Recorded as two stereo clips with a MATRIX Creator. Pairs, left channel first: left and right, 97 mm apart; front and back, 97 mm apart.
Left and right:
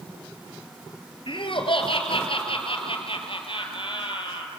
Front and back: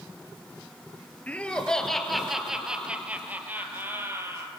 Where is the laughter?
75° left, 3 m; by 4.5 s 120° left, 4.5 m.